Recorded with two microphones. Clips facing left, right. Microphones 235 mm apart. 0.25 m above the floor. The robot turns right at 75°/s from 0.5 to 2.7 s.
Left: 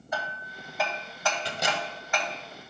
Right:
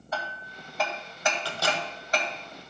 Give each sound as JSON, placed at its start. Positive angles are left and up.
{"t": 0.1, "sound": "hammering", "side_deg": 15, "distance_m": 1.5}
{"t": 1.4, "sound": "a microwave", "side_deg": 20, "distance_m": 1.2}